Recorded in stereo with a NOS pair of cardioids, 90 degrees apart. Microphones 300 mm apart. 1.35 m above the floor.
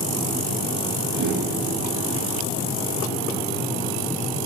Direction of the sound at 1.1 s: 65° right.